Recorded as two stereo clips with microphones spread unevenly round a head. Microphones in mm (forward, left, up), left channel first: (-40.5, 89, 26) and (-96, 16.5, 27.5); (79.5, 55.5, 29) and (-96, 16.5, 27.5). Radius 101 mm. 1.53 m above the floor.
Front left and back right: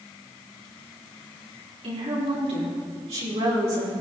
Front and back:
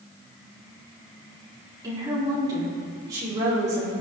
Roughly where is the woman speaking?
Right.